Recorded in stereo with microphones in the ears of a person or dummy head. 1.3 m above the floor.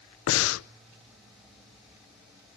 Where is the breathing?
85° left, 0.5 m.